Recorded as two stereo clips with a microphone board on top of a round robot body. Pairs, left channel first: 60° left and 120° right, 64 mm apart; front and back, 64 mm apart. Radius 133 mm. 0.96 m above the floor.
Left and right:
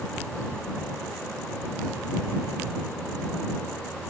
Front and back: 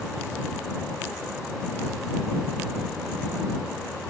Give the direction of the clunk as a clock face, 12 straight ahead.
I don't hear a clunk.